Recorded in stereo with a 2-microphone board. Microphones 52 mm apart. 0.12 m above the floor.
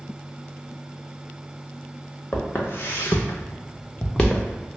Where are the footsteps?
45° left (ahead or behind), 1.1 m; by 4.5 s 10° left (ahead or behind), 0.9 m.